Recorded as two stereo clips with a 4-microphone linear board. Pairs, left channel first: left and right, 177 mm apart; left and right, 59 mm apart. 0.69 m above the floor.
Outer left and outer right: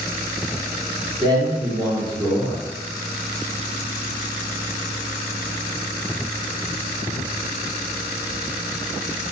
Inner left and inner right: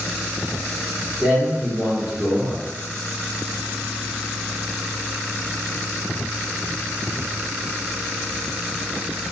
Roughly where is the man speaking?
Right.